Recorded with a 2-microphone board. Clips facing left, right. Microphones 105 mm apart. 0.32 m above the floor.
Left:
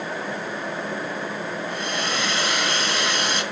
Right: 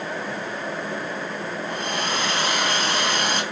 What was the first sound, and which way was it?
A hair dryer, 55° right (ahead or behind).